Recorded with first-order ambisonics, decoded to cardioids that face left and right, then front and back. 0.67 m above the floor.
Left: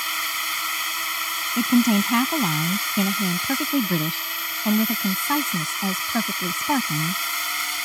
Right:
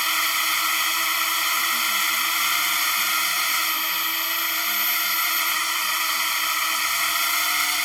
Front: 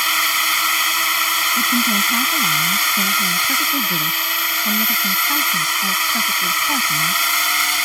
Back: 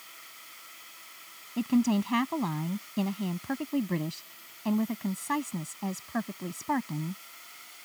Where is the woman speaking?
85° left.